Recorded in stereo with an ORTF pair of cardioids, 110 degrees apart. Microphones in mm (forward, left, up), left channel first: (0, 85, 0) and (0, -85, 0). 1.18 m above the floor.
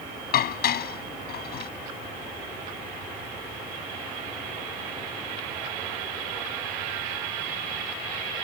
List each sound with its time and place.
0.3 s dishes clattering: 65° left